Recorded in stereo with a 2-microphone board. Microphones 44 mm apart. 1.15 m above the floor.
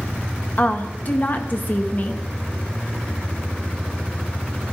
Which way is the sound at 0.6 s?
45° left (ahead or behind).